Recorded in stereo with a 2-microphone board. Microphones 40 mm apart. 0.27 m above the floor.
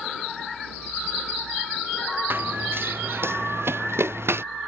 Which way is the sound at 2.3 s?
60° right (ahead or behind).